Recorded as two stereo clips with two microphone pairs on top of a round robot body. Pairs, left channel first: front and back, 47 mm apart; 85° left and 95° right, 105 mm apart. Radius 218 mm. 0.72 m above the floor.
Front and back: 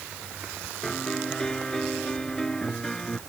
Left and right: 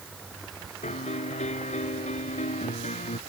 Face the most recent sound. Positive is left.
turn(degrees=80)